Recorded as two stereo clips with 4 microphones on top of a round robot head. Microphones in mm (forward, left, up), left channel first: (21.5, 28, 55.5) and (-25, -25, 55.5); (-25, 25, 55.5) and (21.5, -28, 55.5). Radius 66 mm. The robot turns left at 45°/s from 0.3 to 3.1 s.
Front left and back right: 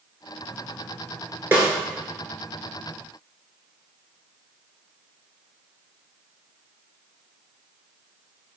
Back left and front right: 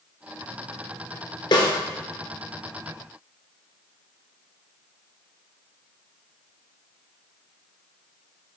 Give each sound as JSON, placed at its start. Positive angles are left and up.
{"t": 1.5, "sound": "a snare drum", "azimuth_deg": 160, "distance_m": 1.4}